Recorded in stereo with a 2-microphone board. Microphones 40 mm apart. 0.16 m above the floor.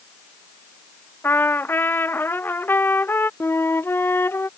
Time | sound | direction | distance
1.2 | a trumpet | 65° left (ahead or behind) | ?
3.4 | a flute | 70° left (ahead or behind) | ?